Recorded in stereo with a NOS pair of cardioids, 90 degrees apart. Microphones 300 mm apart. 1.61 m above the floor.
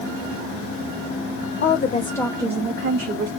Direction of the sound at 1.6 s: 45° left.